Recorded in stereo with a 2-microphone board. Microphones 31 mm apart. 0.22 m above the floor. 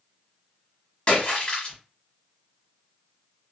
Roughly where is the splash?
Left.